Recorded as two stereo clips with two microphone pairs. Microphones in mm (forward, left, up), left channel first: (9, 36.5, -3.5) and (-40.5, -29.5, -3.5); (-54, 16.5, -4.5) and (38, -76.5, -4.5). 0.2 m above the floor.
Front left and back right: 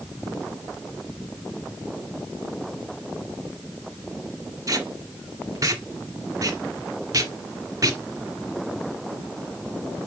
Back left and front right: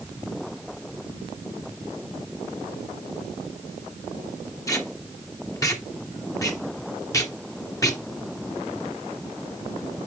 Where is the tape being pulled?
165° right, 1.9 m.